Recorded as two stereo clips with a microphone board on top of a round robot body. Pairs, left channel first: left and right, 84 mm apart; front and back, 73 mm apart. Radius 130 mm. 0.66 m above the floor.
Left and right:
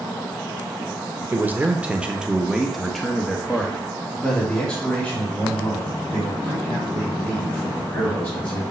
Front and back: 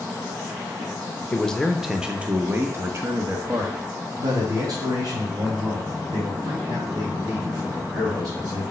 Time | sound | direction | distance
1.3 | a man speaking | 55° right | 1.1 m